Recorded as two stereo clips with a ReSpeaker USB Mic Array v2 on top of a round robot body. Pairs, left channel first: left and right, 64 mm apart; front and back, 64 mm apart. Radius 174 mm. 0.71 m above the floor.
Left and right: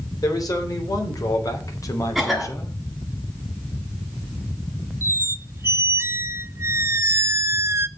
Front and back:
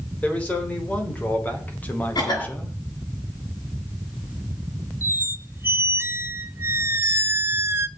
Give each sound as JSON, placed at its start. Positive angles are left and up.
{"t": 0.2, "sound": "a man speaking", "azimuth_deg": 65, "distance_m": 4.0}
{"t": 2.1, "sound": "a cough", "azimuth_deg": 0, "distance_m": 6.0}
{"t": 5.0, "sound": "a squeak", "azimuth_deg": -130, "distance_m": 0.8}